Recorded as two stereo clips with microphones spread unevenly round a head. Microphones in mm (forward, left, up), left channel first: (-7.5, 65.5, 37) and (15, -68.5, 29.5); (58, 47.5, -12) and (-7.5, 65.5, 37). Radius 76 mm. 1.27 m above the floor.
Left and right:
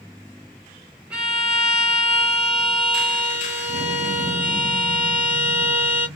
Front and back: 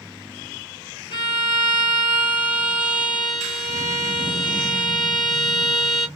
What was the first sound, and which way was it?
A violin, straight ahead.